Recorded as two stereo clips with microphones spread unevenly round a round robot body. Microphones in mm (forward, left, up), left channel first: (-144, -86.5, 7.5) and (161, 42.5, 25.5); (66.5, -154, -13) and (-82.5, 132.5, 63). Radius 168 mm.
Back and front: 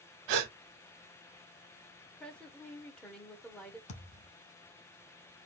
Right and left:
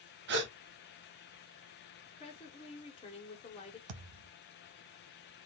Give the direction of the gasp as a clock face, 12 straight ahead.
10 o'clock.